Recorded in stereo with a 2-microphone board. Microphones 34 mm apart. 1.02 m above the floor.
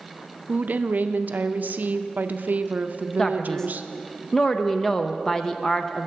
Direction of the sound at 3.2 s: 15° left (ahead or behind).